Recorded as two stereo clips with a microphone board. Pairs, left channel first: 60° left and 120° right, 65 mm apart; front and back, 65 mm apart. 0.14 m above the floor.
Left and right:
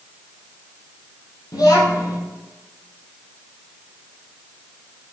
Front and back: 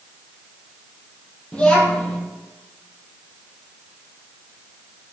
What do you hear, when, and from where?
1.5 s a child speaking: 75° left, 2.5 m